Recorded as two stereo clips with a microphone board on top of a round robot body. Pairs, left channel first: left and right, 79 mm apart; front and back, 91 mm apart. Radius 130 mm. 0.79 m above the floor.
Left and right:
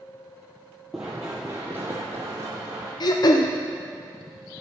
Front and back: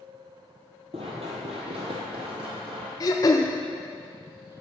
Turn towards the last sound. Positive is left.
turn(degrees=55)